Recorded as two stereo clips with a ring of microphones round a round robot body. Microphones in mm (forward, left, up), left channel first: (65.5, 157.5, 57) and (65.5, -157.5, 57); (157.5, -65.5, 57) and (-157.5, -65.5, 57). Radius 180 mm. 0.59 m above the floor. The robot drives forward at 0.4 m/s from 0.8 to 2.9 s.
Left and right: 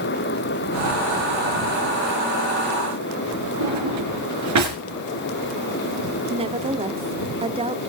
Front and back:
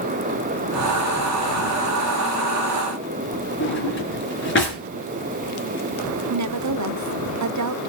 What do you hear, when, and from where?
3.6 s a drawer: 55° right, 4.5 m
6.3 s a woman speaking: 160° right, 1.1 m